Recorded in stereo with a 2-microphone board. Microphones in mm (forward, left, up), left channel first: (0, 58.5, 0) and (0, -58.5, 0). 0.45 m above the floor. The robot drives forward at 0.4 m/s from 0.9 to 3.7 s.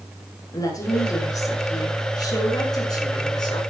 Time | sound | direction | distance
0.5 | a woman speaking | 30° left (ahead or behind) | 6.5 m